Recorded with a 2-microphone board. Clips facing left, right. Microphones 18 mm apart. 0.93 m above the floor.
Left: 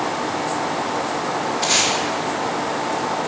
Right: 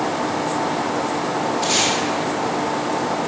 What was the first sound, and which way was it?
Tape being pulled, 20° left (ahead or behind).